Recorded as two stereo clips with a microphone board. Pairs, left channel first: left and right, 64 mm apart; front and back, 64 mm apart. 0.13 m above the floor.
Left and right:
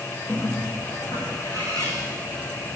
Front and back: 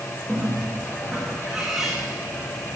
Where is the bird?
95° left, 8 m.